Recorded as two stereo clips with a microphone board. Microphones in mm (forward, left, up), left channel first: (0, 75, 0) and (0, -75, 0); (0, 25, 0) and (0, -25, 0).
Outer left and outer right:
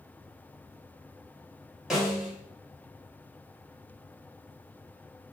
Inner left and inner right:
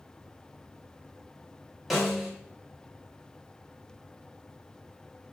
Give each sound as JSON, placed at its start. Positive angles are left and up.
{"t": 1.9, "sound": "a snare drum", "side_deg": 0, "distance_m": 4.5}